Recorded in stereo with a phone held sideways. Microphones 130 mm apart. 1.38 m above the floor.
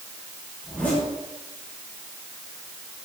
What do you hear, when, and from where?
0.6 s a zipper: 15° left (ahead or behind), 9 m